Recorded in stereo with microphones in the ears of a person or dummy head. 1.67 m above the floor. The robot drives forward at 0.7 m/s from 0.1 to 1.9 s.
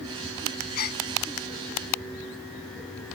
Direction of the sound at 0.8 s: 50° left (ahead or behind).